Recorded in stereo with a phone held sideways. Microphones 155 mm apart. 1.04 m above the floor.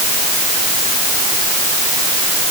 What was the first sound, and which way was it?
Only background noise.